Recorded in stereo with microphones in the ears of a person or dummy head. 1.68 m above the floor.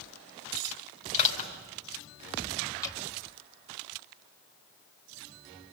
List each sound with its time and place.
1.1 s crushing: 35° left (ahead or behind), 4.5 m
2.8 s dripping: 20° left (ahead or behind), 2.0 m